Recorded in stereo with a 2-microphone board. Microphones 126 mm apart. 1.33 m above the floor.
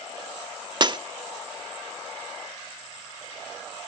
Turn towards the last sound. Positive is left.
turn(degrees=-35)  # may be behind; listen again after turning